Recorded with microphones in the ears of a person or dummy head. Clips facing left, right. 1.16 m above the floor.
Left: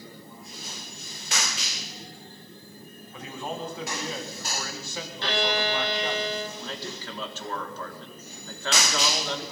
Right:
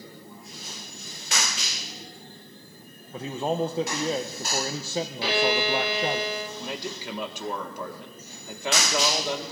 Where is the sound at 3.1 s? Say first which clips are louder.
Right 8 dB; 25° right (ahead or behind), 0.6 m.